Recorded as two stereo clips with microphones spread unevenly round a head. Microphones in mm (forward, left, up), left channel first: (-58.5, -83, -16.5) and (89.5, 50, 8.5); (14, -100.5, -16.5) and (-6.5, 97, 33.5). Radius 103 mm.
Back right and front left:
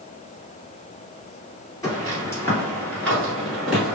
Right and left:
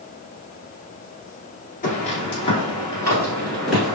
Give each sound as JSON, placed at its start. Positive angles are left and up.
{"t": 1.8, "sound": "footsteps", "azimuth_deg": -75, "distance_m": 1.7}